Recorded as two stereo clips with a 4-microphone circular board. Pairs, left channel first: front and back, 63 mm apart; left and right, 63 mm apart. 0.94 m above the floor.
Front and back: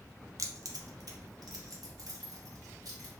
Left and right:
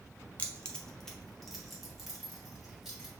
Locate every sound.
0.4 s keys jangling: 160° left, 0.6 m; by 3.1 s 175° right, 2.5 m